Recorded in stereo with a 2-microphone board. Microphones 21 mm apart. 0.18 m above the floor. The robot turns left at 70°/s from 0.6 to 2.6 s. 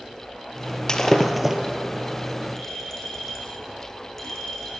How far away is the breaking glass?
About 2 m.